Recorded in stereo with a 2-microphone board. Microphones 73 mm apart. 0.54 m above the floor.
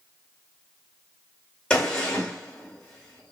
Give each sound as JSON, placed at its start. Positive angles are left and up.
{"t": 1.7, "sound": "a gunshot", "side_deg": 15, "distance_m": 1.6}